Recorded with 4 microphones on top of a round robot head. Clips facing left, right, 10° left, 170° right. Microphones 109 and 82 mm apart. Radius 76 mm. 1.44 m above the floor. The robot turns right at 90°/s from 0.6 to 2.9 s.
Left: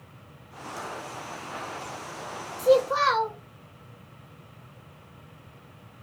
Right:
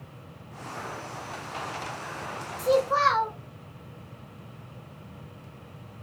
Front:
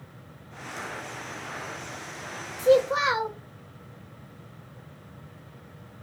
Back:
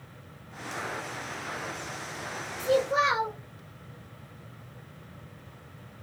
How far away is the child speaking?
About 1.5 m.